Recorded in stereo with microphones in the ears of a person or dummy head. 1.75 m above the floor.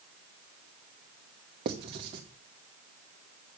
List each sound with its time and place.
1.6 s writing: 30° right (ahead or behind), 0.9 m